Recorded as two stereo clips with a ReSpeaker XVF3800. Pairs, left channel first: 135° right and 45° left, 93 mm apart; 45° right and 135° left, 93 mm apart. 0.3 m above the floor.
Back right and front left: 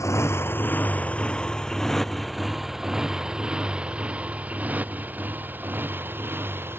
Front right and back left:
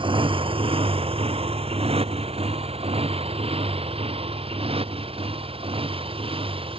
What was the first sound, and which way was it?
A motorcycle, 165° left.